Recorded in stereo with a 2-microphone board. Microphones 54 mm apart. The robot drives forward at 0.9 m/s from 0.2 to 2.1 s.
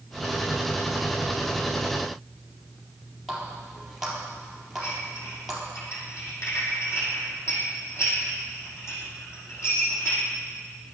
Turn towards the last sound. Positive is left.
turn(degrees=55)  # may be behind; listen again after turning